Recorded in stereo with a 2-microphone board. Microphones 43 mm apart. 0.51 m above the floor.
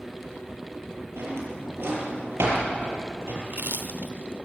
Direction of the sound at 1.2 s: 70° right (ahead or behind).